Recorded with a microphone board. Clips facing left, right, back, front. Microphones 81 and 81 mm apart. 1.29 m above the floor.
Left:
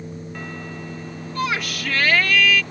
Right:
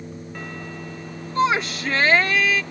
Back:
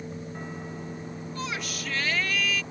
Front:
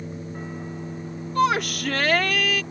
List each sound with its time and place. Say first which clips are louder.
1.4 s a shout: right 5 dB, front 15 dB; 25° right